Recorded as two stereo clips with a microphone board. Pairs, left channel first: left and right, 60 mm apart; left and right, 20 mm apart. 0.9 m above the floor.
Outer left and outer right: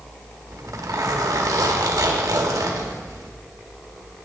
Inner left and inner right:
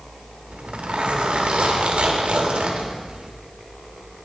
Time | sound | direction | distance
0.5 | a zipper | 80° right | 1.2 m